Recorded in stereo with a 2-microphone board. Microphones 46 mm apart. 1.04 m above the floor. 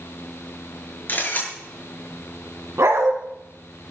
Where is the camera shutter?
45° left (ahead or behind), 7 m.